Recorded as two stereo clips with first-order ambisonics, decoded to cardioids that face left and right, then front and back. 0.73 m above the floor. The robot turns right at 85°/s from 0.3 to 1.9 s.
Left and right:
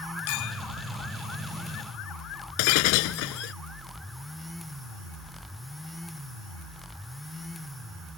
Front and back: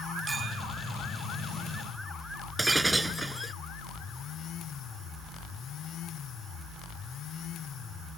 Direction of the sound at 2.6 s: 95° left.